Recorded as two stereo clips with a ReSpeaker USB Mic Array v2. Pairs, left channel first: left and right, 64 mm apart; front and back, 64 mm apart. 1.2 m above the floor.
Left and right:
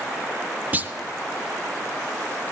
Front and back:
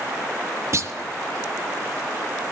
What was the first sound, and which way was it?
A clunk, 150° right.